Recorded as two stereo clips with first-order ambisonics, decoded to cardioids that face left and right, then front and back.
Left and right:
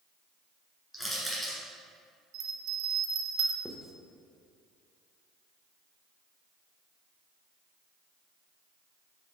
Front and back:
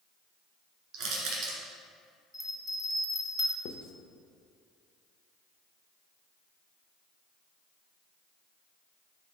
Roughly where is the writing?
Ahead.